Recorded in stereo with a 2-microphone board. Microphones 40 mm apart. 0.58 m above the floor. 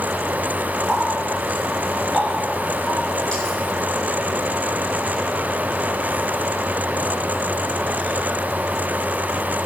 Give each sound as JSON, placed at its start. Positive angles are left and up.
{"t": 0.9, "sound": "a running tap", "side_deg": 20, "distance_m": 5.0}